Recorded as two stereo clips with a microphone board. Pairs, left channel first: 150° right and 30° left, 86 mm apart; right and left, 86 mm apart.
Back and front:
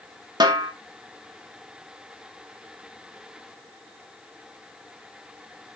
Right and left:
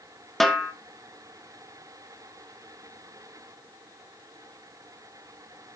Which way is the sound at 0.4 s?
Straight ahead.